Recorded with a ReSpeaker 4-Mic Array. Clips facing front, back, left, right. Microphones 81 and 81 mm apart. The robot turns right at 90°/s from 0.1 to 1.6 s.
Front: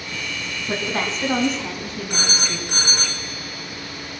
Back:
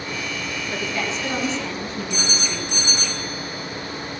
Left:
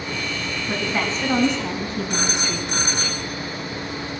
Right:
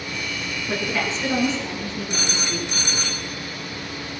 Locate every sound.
0.6 s a woman speaking: straight ahead, 3.5 m; by 3.1 s 90° left, 3.5 m
2.1 s a phone ringing: 40° left, 2.5 m